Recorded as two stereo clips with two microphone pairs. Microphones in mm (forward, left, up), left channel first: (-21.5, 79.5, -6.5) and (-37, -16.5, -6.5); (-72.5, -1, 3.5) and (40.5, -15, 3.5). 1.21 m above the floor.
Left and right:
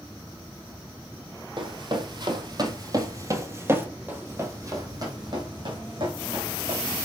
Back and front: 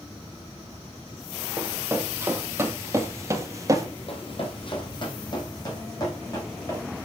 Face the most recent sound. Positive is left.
turn(degrees=-125)